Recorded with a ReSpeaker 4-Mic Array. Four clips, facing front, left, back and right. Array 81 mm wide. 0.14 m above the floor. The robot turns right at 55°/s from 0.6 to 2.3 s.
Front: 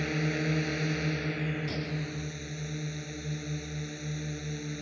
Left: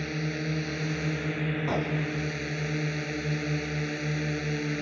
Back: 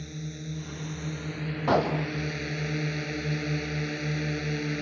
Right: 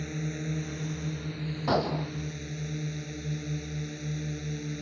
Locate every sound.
0.0 s a drone: 30° left; by 4.8 s 125° left
1.7 s a gunshot: 165° right; by 2.1 s 140° right